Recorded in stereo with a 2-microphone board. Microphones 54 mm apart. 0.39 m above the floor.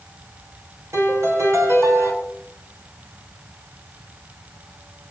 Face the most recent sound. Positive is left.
turn(degrees=-60)  # may be behind; listen again after turning